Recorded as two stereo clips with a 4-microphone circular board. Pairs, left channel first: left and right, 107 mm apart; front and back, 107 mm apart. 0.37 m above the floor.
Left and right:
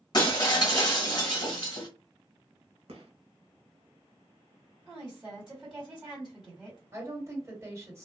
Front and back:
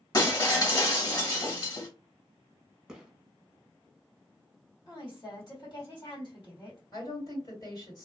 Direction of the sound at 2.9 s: 95° right.